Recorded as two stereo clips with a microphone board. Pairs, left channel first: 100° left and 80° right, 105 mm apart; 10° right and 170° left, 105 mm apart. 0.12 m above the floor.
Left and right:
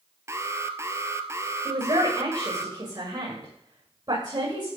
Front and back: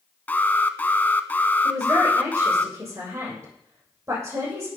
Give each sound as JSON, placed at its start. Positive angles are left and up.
{"t": 0.3, "sound": "an alarm", "azimuth_deg": -65, "distance_m": 1.1}
{"t": 1.6, "sound": "a man speaking", "azimuth_deg": -125, "distance_m": 8.0}